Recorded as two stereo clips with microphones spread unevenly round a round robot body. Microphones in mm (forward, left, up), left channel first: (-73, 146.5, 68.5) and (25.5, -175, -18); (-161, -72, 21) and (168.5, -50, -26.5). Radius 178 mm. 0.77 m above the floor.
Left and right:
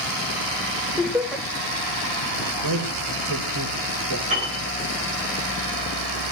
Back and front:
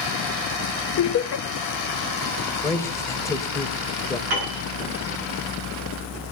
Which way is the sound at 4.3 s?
5° right.